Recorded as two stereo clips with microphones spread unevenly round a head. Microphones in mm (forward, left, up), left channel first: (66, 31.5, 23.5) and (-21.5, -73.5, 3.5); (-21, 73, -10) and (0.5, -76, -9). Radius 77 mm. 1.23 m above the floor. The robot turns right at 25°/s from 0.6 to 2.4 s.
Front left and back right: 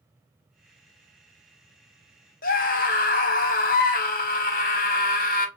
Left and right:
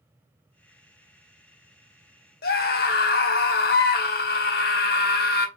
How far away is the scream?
About 1.0 m.